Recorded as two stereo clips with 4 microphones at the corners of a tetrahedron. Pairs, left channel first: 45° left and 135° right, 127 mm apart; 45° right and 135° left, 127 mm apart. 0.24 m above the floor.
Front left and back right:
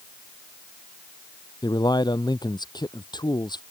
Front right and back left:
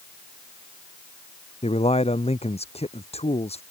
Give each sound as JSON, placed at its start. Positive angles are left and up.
{"t": 1.6, "sound": "a man speaking", "azimuth_deg": -10}